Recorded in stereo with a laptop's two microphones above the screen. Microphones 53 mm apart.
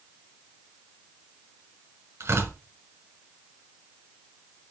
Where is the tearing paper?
55° right (ahead or behind), 1.9 m.